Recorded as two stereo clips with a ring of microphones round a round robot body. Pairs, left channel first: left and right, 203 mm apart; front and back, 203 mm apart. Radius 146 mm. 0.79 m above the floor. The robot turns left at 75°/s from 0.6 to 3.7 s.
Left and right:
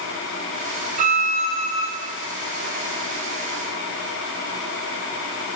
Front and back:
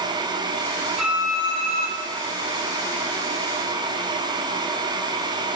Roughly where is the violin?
Right.